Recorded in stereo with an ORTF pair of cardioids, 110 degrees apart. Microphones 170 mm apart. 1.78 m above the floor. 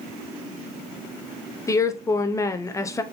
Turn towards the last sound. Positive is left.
turn(degrees=20)